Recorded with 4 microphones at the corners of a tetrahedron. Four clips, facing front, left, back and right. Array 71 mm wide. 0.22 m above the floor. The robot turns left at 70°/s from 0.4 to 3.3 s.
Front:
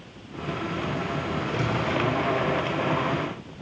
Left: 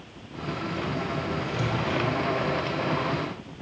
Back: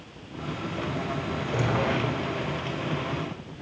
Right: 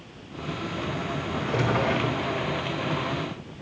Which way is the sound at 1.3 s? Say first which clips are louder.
Right 3 dB, back 2 dB; 90° right.